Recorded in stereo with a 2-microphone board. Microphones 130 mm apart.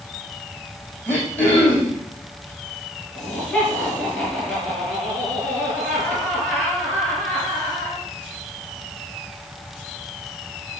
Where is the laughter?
5° left (ahead or behind), 4 m.